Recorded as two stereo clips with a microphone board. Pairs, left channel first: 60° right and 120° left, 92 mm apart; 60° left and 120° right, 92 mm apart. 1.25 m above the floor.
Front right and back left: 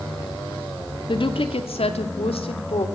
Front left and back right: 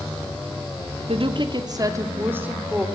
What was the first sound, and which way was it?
A woman speaking, 95° right.